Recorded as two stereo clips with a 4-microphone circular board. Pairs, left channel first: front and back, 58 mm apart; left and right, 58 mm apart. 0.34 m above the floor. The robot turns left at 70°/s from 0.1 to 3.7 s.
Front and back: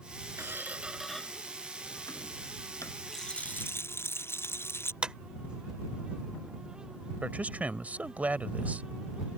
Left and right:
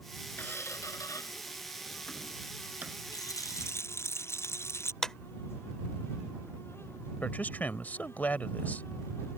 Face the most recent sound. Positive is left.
turn(degrees=135)